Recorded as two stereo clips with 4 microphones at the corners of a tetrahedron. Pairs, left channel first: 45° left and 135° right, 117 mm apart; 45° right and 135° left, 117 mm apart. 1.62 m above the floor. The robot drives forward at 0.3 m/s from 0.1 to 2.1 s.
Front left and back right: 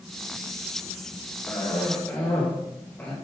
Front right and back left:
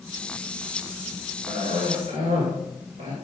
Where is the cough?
115° left, 2.5 m; by 3.1 s 120° left, 2.5 m.